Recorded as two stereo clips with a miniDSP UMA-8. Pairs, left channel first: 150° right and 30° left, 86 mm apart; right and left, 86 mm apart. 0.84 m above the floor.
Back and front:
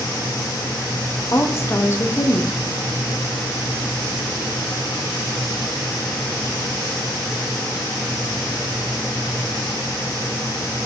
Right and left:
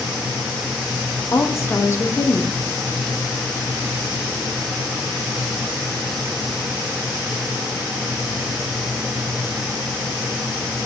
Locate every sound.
1.3 s a woman speaking: 120° right, 0.7 m